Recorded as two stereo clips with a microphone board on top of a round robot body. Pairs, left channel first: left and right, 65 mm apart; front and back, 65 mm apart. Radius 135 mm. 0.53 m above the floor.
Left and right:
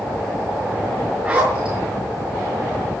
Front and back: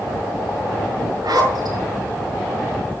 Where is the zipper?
165° right, 6 m.